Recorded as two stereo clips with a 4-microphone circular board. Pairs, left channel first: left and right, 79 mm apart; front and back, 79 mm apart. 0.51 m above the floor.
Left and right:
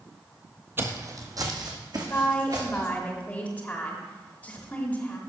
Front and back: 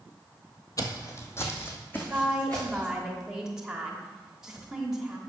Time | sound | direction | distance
0.8 | footsteps | 35° right | 0.9 m
2.1 | a woman speaking | 110° left | 1.3 m